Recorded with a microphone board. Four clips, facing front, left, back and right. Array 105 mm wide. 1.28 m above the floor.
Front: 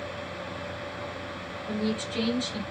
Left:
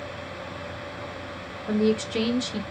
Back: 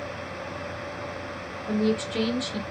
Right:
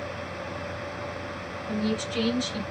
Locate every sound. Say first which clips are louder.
1.7 s a woman speaking: left 6 dB, back 5 dB; 110° left, 1.1 m